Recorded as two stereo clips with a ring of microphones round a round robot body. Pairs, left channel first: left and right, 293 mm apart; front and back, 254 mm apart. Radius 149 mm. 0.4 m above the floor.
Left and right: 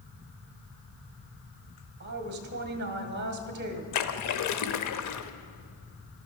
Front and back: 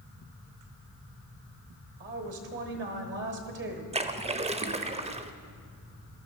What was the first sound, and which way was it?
A woman speaking, 140° right.